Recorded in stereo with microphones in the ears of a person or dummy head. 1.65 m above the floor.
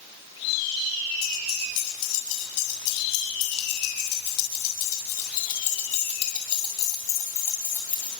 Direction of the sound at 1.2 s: 85° left.